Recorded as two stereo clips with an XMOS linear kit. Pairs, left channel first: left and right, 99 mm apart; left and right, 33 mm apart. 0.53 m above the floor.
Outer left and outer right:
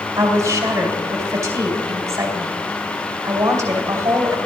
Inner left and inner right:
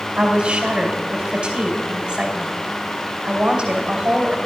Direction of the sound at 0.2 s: 35° right (ahead or behind).